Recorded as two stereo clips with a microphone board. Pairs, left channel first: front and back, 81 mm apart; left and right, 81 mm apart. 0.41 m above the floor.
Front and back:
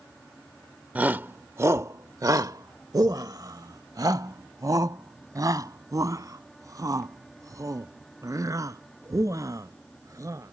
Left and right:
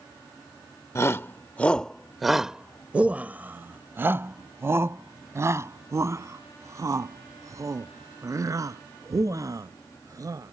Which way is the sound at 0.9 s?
120° left.